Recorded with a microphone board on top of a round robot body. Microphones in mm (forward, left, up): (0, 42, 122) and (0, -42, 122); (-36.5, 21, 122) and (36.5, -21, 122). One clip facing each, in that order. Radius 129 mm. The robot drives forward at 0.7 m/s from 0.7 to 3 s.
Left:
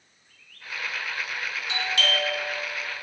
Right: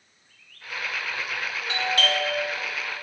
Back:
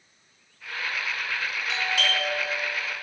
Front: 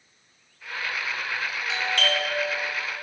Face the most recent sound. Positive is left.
turn(degrees=-145)